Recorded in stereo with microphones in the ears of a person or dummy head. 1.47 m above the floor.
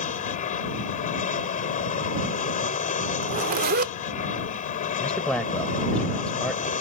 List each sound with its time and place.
0.0 s an aircraft: 45° left (ahead or behind)
3.2 s a zipper: 50° right (ahead or behind)
5.0 s a man speaking: 5° left (ahead or behind)